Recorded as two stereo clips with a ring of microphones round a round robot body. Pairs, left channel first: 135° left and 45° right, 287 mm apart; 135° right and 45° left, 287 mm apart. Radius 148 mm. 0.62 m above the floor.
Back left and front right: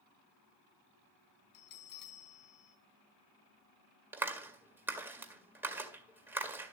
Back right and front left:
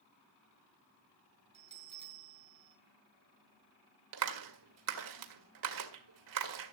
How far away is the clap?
About 1.9 m.